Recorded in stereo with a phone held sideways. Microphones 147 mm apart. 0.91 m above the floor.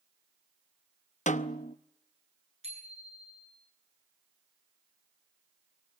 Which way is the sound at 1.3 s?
55° left (ahead or behind).